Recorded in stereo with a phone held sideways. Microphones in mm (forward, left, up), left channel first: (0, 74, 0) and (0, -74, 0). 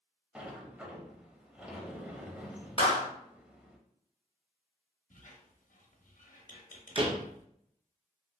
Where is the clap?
40° left (ahead or behind), 0.8 m.